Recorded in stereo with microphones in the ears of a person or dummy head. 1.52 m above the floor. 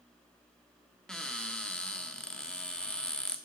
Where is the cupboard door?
5° left (ahead or behind), 1.3 m.